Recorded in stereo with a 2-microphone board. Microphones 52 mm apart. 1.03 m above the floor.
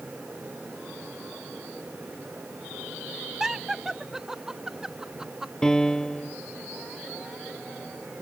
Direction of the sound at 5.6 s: 10° left (ahead or behind).